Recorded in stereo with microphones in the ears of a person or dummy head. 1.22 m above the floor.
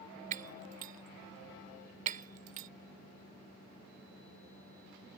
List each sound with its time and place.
0.3 s breaking glass: 45° right (ahead or behind)